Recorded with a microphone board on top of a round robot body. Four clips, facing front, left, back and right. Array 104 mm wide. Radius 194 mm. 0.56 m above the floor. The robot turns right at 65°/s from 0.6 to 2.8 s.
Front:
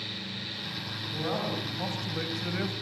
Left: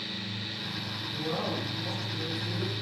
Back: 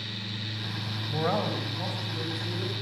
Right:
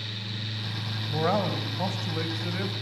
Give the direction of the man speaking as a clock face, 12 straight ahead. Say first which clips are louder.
Right 7 dB, back 4 dB; 4 o'clock.